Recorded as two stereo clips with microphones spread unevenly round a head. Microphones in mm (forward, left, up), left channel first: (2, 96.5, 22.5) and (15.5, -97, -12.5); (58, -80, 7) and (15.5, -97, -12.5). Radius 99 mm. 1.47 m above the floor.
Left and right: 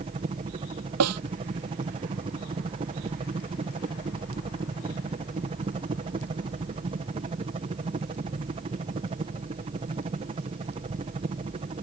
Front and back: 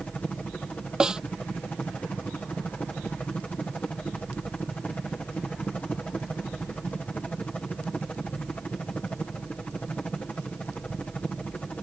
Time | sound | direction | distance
0.0 | a helicopter | 45° right | ?
1.0 | a snare drum | 80° right | ?